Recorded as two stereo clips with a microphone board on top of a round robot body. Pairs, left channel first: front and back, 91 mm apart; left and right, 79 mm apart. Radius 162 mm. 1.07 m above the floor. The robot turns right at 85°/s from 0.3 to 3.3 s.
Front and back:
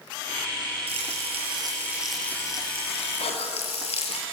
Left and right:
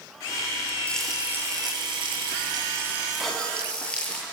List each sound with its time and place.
0.9 s frying: 165° left, 7.5 m; by 4.2 s 10° left, 7.5 m
3.2 s a cough: 5° right, 3 m; by 3.6 s 5° left, 3 m